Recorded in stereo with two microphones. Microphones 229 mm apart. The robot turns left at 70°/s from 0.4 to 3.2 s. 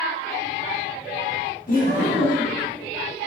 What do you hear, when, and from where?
1.7 s laughter: 75° left, 1.4 m; by 2.6 s 10° left, 1.4 m